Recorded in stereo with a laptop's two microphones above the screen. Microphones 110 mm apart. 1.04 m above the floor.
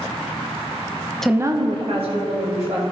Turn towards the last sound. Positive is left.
turn(degrees=-70)  # may be behind; listen again after turning